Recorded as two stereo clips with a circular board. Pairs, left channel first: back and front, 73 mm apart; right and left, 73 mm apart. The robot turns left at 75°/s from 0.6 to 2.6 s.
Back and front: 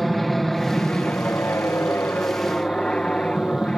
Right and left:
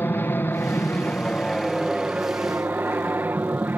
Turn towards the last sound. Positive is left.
turn(degrees=115)